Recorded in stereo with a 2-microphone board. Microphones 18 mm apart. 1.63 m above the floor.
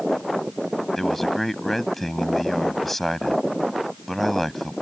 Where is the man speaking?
15° left (ahead or behind).